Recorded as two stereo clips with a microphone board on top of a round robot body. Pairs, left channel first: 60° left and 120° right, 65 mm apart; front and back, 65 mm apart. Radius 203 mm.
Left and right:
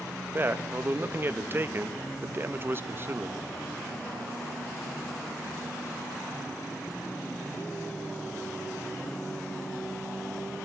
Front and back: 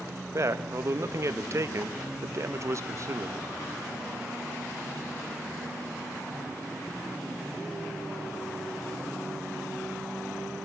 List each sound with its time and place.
0.3 s a man speaking: 165° right, 1.6 m